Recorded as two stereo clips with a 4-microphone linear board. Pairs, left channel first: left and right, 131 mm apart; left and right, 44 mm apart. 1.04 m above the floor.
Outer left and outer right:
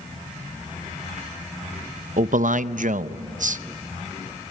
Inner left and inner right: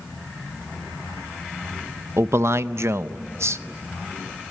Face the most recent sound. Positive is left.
turn(degrees=-75)  # may be behind; listen again after turning